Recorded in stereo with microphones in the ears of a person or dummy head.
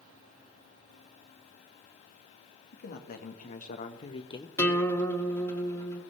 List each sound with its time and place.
2.7 s a man speaking: 55° left (ahead or behind), 1.7 m; by 4.5 s 20° left (ahead or behind), 0.7 m
4.6 s a guitar: 15° left (ahead or behind), 1.7 m